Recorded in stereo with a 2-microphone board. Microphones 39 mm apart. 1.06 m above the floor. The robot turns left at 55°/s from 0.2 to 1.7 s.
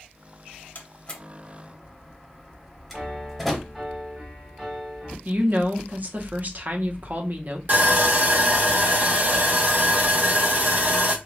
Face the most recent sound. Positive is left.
turn(degrees=-50)  # may be behind; listen again after turning